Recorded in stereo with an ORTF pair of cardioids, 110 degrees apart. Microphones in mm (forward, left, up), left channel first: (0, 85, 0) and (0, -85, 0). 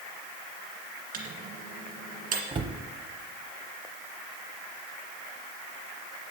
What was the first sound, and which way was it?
A microwave, 60° right.